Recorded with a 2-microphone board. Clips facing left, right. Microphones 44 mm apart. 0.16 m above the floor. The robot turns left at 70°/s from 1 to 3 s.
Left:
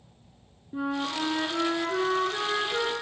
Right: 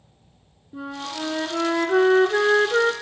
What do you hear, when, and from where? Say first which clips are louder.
0.7 s a flute: left 2 dB; 15° left, 0.5 m; by 2.9 s 120° right, 0.5 m